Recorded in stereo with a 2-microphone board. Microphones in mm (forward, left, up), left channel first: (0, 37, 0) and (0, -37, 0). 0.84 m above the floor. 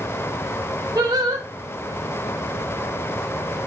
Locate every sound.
0.9 s singing: 65° right (ahead or behind), 0.8 m